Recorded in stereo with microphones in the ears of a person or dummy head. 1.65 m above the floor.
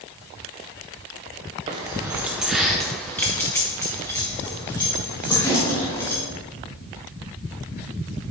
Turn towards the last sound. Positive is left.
turn(degrees=15)  # may be behind; listen again after turning